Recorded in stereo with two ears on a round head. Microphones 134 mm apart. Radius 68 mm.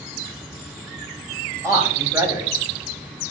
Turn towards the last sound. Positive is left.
turn(degrees=-20)  # may be behind; listen again after turning